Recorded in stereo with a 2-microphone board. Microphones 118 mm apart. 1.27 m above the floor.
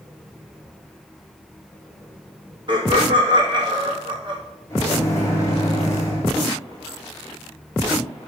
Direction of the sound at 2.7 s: 40° right (ahead or behind).